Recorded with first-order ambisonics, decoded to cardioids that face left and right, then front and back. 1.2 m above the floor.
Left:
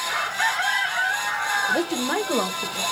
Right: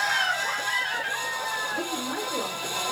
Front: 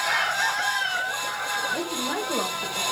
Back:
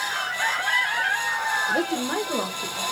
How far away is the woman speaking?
About 1.0 m.